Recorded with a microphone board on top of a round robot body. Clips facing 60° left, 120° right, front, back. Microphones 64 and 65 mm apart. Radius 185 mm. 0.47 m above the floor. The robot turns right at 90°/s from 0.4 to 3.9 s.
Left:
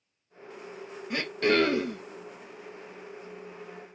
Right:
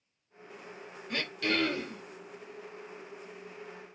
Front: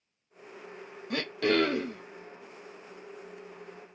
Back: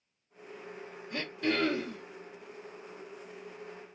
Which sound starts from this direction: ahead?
Throat clearing, at 1.1 s.